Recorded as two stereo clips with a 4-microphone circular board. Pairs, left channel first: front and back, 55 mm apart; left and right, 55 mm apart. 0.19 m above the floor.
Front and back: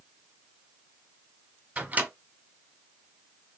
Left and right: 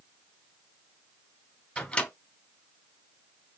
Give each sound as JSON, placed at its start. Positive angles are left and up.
{"t": 1.8, "sound": "a microwave", "azimuth_deg": 150, "distance_m": 1.0}